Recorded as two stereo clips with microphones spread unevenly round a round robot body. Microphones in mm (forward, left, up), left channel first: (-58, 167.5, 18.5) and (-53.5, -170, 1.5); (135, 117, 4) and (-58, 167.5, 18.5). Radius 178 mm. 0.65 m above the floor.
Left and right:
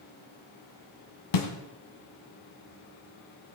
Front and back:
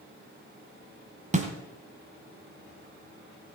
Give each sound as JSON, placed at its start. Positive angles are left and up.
{"t": 1.3, "sound": "a snare drum", "azimuth_deg": 105, "distance_m": 1.9}